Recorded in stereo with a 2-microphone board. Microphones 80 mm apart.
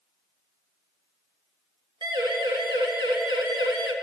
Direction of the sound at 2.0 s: 70° right (ahead or behind).